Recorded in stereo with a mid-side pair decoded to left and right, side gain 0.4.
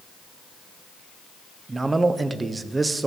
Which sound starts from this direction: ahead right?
A man speaking, at 1.7 s.